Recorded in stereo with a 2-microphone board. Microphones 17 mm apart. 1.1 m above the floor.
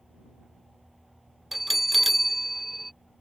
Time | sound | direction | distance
1.5 | a bell | 10° right (ahead or behind) | ?